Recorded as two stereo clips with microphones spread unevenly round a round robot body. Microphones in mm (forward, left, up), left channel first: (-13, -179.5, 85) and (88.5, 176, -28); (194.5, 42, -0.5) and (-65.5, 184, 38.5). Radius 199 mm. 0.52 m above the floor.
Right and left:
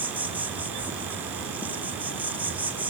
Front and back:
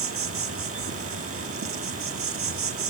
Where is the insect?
130° left, 1.3 m.